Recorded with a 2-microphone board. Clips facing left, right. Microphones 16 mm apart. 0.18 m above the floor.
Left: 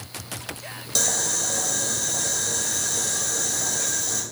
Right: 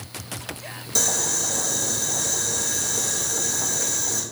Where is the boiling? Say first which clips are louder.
Right 1 dB; 5° left (ahead or behind), 3 m.